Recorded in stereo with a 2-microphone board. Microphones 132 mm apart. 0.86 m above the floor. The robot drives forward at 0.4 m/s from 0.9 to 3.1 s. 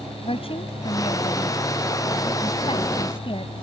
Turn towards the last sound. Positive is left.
turn(degrees=40)  # may be behind; listen again after turning